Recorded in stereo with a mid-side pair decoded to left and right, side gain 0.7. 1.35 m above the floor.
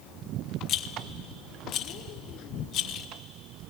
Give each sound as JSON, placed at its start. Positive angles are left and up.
{"t": 0.7, "sound": "a rattle", "azimuth_deg": 50, "distance_m": 0.8}